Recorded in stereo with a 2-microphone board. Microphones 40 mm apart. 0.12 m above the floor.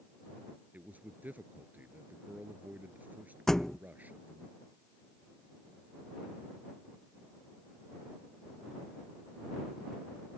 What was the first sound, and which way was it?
A man speaking, 45° right (ahead or behind).